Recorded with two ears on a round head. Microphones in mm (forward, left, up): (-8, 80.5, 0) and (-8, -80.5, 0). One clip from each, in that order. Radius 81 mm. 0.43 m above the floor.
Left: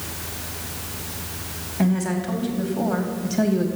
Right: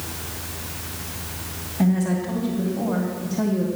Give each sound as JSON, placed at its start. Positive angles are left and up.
{"t": 1.8, "sound": "a woman speaking", "side_deg": 20, "distance_m": 2.5}